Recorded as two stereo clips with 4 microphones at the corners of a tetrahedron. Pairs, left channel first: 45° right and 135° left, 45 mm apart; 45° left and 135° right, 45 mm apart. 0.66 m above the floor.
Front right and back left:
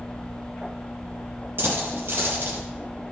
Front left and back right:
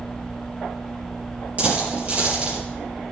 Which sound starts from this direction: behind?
A dropped coin, at 1.6 s.